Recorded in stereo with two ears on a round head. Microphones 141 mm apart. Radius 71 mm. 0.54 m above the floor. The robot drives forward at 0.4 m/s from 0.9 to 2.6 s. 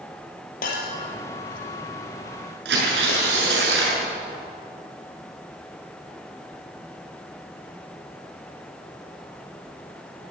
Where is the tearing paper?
75° right (ahead or behind), 6.5 m.